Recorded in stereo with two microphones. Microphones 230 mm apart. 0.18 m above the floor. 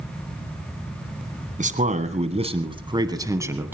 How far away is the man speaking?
About 1.8 m.